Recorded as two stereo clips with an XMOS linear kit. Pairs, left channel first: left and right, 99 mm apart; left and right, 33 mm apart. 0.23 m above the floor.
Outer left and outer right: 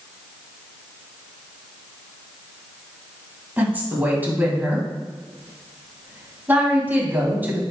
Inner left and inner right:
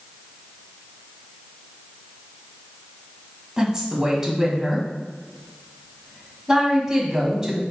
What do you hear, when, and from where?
3.6 s a woman speaking: 20° right (ahead or behind), 1.9 m